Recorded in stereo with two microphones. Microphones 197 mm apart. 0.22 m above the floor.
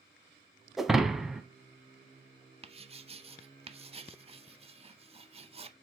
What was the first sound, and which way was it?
Breaking glass, centre (ahead or behind).